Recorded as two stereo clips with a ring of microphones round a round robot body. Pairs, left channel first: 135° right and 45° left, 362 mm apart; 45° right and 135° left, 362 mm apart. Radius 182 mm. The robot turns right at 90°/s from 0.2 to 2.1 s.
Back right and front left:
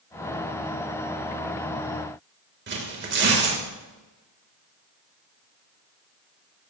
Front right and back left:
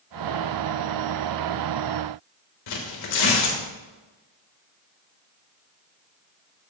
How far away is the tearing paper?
About 3 m.